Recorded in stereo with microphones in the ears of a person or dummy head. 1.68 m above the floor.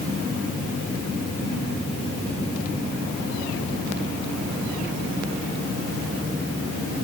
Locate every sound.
Only background noise.